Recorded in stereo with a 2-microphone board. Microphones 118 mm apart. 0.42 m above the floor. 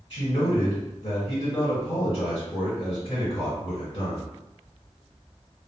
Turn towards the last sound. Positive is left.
turn(degrees=40)  # may be behind; listen again after turning